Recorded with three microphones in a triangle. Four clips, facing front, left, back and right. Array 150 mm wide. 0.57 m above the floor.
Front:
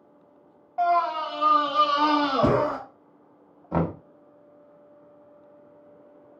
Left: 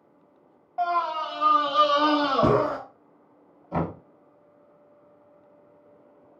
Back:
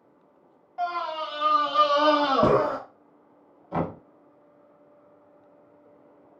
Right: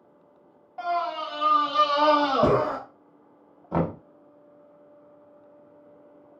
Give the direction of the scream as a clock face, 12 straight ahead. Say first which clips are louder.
Left 2 dB, front 7 dB; 11 o'clock.